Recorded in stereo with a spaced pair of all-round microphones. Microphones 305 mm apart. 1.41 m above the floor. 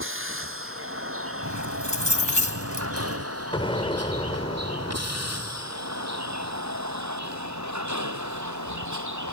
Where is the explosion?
15° left (ahead or behind).